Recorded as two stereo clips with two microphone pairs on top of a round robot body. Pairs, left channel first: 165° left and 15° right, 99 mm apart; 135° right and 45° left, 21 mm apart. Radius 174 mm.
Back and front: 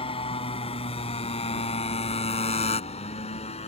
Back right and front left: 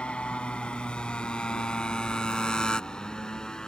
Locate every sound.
0.0 s a motorcycle: 165° right; by 3.7 s 170° left